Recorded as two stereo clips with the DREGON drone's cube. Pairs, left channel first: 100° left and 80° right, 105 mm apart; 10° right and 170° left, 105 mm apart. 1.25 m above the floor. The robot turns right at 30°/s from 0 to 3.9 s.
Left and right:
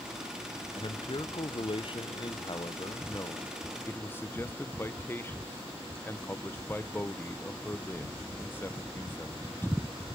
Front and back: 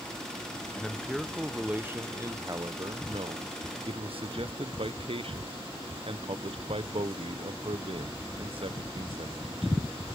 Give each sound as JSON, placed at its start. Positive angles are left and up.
{"t": 0.8, "sound": "a man speaking", "azimuth_deg": 70, "distance_m": 0.8}